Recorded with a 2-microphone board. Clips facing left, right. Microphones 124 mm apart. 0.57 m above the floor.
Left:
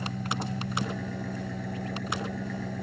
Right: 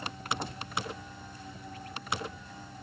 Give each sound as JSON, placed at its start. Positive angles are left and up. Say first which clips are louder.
{"t": 0.0, "sound": "an engine running", "louder": "left 4 dB", "side_deg": 75}